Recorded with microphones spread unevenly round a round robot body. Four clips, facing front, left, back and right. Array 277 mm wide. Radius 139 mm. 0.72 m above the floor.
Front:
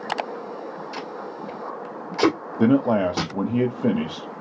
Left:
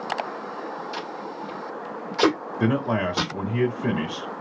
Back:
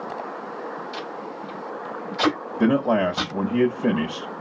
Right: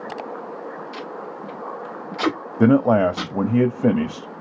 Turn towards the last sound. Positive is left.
turn(degrees=-85)